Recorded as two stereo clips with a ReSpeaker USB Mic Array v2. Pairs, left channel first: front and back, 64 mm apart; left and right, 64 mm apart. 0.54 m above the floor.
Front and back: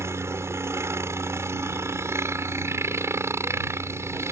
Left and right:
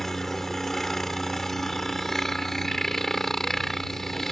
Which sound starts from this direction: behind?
A helicopter, at 0.0 s.